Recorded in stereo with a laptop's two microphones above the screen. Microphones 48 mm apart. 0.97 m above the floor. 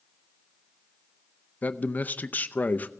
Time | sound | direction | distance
1.6 | a man speaking | 35° left (ahead or behind) | 0.6 m